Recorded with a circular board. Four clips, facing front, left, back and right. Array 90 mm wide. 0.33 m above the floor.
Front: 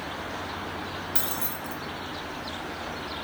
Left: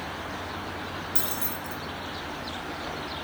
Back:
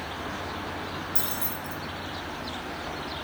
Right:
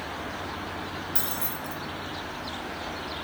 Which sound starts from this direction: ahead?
Keys jangling, at 1.1 s.